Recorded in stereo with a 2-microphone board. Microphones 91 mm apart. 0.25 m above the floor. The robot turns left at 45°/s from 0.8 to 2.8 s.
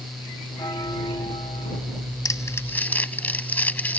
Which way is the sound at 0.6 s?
130° left.